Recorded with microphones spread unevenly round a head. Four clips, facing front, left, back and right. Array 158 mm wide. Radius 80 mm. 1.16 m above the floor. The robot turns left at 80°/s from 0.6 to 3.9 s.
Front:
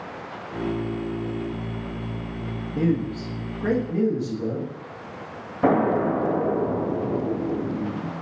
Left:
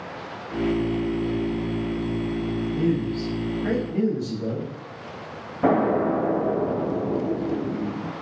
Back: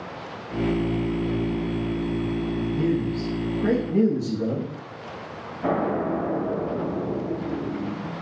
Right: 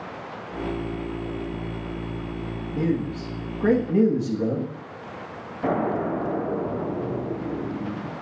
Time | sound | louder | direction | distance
2.7 | a man speaking | even, front 3 dB | 20° right | 1.8 m
5.6 | an explosion | left 4 dB, front 4 dB | 30° left | 1.9 m